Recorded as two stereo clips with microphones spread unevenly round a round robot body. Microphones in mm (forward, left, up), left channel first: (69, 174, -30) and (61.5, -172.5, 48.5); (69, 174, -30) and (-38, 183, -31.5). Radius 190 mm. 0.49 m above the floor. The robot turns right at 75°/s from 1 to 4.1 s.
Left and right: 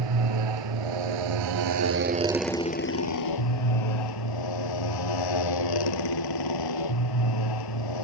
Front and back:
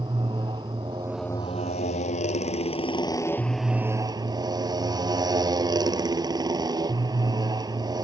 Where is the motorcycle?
110° right; by 8.1 s 125° left.